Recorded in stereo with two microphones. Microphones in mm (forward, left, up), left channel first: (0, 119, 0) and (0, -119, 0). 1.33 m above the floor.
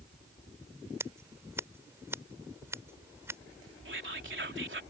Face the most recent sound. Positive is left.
turn(degrees=-50)  # may be behind; listen again after turning